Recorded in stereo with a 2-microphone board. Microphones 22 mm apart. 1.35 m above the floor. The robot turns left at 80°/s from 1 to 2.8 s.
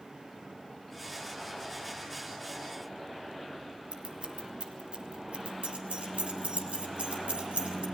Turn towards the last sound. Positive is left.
turn(degrees=-70)  # may be behind; listen again after turning